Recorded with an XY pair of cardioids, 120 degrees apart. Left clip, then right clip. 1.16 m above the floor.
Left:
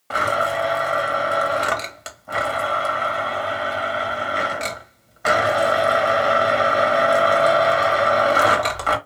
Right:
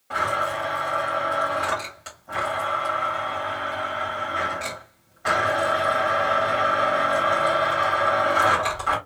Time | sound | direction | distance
0.1 | a blender | 50° left | 1.7 m